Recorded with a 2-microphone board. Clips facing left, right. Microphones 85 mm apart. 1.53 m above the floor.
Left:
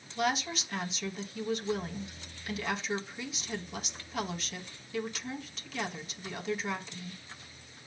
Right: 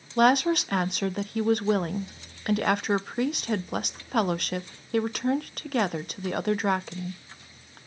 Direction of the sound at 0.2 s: 60° right (ahead or behind).